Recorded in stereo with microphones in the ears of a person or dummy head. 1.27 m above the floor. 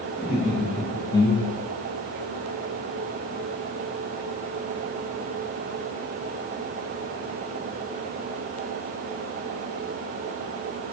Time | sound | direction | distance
0.2 | laughter | 5° right (ahead or behind) | 1.1 m